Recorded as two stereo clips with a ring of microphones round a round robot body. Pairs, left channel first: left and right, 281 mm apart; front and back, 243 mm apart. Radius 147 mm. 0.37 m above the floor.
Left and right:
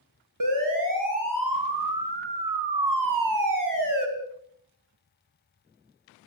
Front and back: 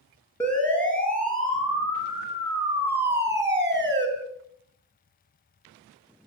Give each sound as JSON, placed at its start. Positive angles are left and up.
{"t": 0.4, "sound": "a siren", "azimuth_deg": -85, "distance_m": 8.0}